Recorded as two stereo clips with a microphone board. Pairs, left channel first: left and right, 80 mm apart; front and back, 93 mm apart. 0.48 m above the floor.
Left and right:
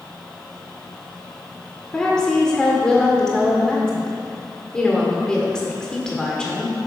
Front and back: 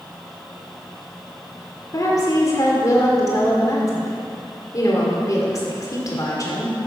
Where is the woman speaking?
15° left, 1.6 m.